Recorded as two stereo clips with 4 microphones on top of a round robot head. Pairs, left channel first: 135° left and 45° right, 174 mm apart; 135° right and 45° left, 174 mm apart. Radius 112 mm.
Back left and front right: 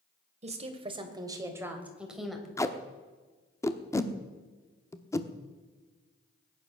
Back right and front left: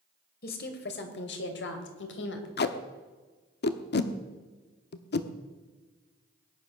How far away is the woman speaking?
About 3 m.